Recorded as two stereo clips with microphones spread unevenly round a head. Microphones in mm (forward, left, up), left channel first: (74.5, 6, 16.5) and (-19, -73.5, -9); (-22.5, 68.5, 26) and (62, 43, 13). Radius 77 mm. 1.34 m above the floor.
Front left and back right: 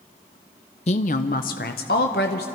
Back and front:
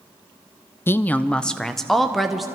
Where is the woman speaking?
95° left, 0.5 m; by 2.5 s 70° left, 1.3 m.